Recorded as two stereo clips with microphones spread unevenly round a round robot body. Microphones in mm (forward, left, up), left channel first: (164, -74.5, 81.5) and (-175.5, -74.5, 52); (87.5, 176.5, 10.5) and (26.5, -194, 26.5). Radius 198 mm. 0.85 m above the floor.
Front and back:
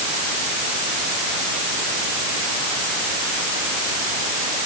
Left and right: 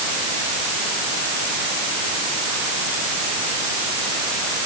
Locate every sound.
Only background noise.